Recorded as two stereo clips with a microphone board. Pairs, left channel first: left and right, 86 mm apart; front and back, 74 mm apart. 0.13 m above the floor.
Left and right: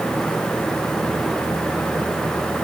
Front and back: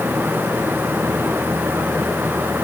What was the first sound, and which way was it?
Only background noise.